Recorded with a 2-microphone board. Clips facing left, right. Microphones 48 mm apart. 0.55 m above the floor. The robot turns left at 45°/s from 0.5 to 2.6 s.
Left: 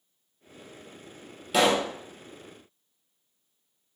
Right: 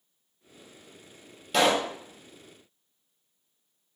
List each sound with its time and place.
1.5 s a pop: 5° left (ahead or behind), 0.6 m; by 1.9 s 15° right (ahead or behind), 0.6 m